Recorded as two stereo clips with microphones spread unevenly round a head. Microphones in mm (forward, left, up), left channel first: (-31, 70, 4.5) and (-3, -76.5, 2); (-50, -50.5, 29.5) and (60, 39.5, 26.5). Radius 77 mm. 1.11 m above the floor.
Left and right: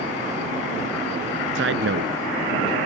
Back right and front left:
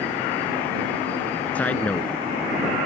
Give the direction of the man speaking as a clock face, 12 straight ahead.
2 o'clock.